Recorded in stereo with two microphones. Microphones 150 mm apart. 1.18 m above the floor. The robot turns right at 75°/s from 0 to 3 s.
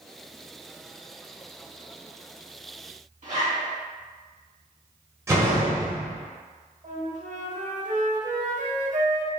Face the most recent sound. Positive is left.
turn(degrees=-60)  # may be behind; listen again after turning